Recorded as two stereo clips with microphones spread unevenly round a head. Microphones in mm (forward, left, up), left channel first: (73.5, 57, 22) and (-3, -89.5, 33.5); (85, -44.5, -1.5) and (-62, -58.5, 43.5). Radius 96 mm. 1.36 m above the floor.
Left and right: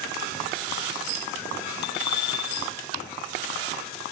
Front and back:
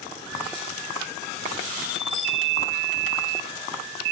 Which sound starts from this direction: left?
A bicycle bell, at 1.8 s.